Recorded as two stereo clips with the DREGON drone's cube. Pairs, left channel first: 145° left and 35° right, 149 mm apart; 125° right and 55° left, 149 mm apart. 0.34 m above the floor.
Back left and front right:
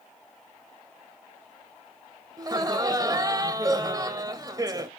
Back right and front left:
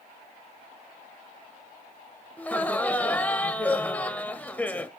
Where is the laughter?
55° right, 1.2 m.